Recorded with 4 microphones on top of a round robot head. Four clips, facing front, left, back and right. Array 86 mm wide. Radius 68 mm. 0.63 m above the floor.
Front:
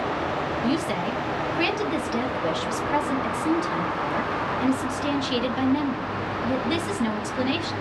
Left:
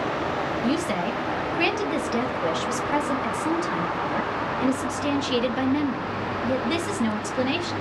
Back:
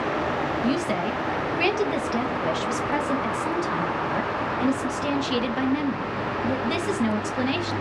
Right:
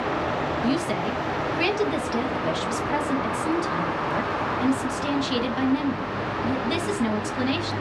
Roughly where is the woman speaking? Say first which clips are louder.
Left 1 dB, front 1 dB; behind left.